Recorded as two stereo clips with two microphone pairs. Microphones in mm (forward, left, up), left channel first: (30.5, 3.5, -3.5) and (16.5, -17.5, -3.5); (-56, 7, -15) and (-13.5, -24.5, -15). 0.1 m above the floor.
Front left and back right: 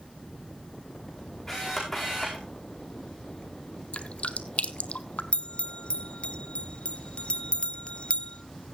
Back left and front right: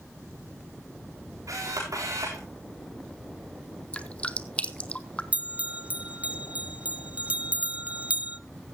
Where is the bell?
25° left, 0.6 m.